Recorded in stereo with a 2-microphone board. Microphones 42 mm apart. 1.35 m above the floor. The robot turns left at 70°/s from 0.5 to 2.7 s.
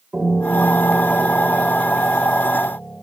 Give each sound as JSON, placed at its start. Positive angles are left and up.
{"t": 0.1, "sound": "a piano", "azimuth_deg": -35, "distance_m": 4.0}